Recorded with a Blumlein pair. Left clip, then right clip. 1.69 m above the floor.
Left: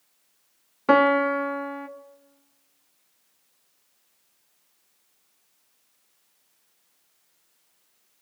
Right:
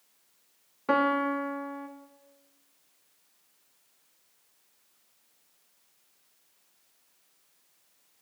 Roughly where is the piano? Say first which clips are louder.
Left 7 dB; ahead left.